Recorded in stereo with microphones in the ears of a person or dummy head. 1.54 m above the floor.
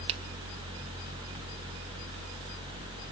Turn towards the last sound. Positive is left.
turn(degrees=-30)  # may be behind; listen again after turning